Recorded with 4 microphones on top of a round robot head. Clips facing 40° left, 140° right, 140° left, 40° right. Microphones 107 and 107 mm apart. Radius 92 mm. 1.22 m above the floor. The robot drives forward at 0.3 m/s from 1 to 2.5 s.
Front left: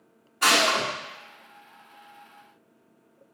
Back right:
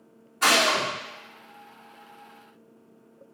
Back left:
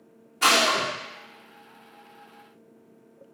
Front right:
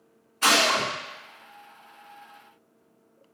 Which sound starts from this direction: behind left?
A gunshot, at 0.4 s.